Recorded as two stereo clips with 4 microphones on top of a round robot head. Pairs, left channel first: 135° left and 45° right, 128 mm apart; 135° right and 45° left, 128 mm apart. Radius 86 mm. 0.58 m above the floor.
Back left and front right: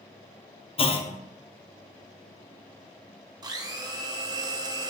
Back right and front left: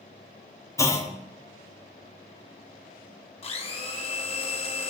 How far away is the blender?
About 1.6 m.